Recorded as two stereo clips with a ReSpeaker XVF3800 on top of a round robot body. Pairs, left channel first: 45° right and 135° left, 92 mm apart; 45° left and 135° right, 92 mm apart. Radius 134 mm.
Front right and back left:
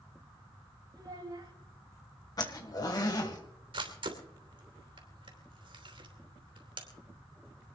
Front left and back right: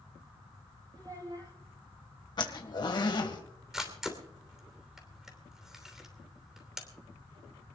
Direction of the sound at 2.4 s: 5° left.